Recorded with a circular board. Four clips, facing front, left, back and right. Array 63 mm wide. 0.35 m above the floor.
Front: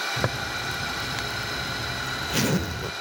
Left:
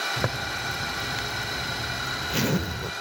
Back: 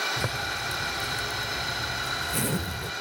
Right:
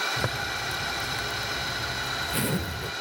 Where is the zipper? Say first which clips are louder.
Left 1 dB, front 2 dB; 25° left, 0.5 m.